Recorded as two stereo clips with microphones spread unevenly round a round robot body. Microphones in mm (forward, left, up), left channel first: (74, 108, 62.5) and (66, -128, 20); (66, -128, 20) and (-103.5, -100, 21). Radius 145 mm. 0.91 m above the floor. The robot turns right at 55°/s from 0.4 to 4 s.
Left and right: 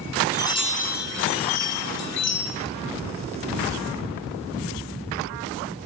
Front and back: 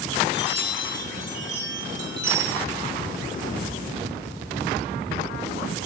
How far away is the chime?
About 1.9 m.